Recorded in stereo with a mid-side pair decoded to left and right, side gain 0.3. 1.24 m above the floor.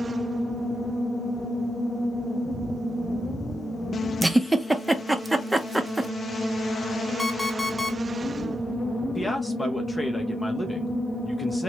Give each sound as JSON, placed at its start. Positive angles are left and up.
{"t": 4.2, "sound": "a giggle", "azimuth_deg": -20, "distance_m": 0.7}
{"t": 7.2, "sound": "an alarm clock", "azimuth_deg": 0, "distance_m": 2.0}
{"t": 9.2, "sound": "a man speaking", "azimuth_deg": 15, "distance_m": 0.9}